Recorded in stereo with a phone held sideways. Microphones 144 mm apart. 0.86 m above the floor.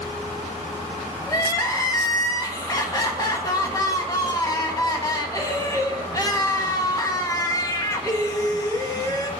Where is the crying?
25° left (ahead or behind), 1.2 m.